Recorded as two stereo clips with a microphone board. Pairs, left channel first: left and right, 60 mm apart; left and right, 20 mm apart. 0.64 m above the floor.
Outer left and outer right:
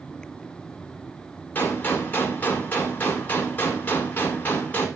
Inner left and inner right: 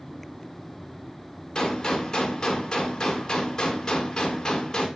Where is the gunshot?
30° left (ahead or behind), 2 m.